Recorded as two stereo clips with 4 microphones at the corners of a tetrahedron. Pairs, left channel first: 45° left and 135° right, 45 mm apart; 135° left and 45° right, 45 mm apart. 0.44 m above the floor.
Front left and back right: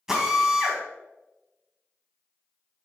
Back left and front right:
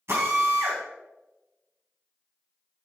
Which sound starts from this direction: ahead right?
A drill, at 0.1 s.